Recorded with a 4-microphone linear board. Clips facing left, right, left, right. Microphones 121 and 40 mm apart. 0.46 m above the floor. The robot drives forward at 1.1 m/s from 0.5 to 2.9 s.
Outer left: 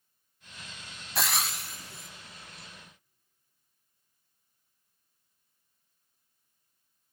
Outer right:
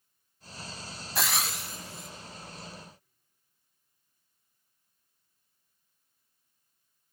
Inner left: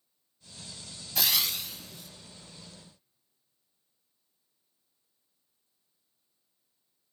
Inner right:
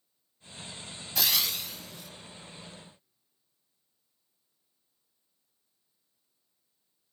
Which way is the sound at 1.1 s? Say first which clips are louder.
Even, even; centre (ahead or behind).